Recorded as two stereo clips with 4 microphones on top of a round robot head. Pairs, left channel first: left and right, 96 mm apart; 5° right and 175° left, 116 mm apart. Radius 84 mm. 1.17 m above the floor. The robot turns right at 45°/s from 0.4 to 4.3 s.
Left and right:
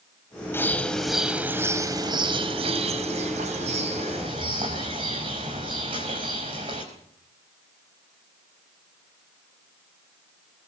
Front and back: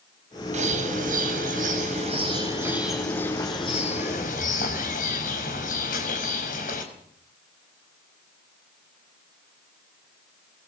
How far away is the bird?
About 4 m.